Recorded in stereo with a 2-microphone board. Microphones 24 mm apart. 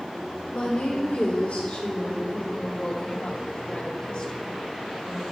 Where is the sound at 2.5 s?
45° left (ahead or behind), 2.5 m.